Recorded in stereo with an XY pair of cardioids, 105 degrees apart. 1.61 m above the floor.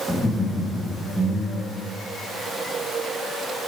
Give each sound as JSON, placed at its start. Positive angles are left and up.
{"t": 0.1, "sound": "laughter", "azimuth_deg": 10, "distance_m": 1.4}